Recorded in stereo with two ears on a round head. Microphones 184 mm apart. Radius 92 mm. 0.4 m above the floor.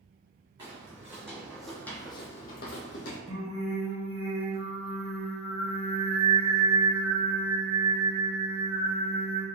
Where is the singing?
20° right (ahead or behind), 1.9 m.